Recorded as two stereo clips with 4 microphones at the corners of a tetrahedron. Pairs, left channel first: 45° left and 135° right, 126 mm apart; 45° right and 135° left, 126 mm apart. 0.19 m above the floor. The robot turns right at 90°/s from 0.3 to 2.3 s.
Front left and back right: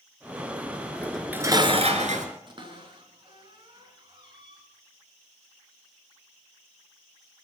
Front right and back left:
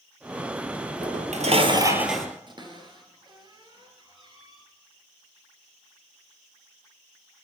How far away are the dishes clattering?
About 2.5 m.